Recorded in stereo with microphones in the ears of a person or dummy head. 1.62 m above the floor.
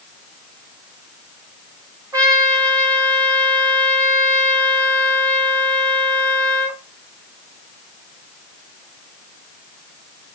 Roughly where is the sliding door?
I don't hear a sliding door.